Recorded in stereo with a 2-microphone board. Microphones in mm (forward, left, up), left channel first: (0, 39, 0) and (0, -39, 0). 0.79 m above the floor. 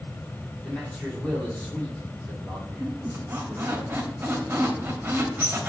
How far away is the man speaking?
About 2 m.